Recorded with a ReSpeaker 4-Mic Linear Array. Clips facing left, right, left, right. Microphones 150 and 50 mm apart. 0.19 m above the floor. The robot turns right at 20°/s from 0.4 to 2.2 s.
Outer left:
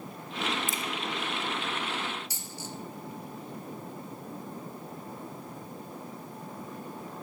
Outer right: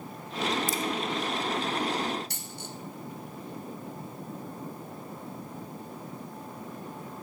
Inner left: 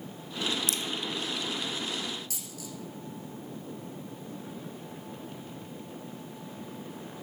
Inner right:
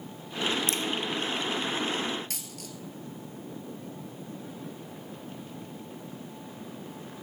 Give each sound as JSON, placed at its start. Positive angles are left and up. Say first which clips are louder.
{"t": 0.7, "sound": "a crack", "louder": "outer right 5 dB, inner right 3 dB", "side_deg": -40, "distance_m": 1.0}
{"t": 2.3, "sound": "a dropped coin", "louder": "even, even", "side_deg": -65, "distance_m": 1.3}